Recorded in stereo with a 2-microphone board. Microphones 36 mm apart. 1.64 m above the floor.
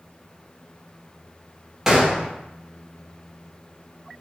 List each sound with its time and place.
1.9 s a gunshot: 10° right (ahead or behind), 0.8 m